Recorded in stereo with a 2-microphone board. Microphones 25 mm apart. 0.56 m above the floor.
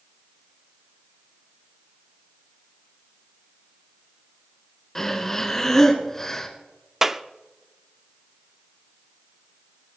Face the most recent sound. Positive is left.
turn(degrees=-10)  # may be behind; listen again after turning